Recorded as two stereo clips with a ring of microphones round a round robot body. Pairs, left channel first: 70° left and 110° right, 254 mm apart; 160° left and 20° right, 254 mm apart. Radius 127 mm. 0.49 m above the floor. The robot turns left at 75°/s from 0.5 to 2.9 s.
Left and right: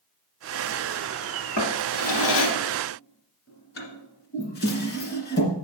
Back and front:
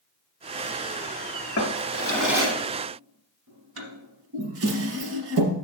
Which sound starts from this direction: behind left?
A drawer, at 1.6 s.